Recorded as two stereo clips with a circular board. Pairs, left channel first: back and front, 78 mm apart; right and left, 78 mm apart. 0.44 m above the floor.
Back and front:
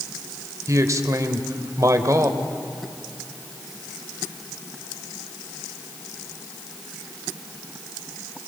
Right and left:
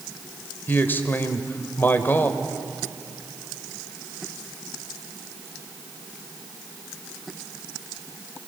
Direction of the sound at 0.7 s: 35° right.